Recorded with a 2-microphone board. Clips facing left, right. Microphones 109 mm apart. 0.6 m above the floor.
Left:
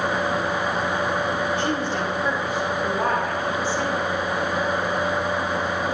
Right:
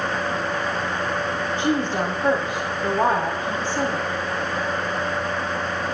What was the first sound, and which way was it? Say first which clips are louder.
A woman speaking: right 2 dB; 40° right (ahead or behind).